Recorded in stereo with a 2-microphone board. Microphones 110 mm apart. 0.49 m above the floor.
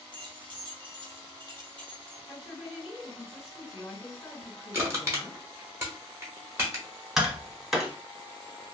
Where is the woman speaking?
55° left (ahead or behind), 2 m.